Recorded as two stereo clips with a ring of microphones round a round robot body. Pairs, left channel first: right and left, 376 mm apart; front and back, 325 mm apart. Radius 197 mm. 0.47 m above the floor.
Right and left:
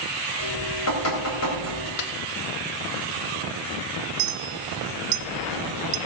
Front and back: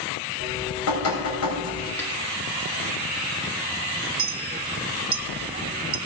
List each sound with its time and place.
0.4 s dripping: 45° right, 3.5 m
2.0 s a snare drum: 85° right, 1.2 m
4.2 s a clink: 115° left, 0.6 m